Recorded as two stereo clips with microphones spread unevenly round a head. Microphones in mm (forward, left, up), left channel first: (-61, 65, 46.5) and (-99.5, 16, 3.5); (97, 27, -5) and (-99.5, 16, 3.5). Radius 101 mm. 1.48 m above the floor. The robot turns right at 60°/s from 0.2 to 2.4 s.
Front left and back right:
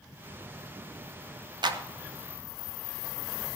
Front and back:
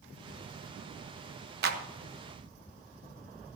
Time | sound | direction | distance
1.6 | a clap | 135° right | 1.1 m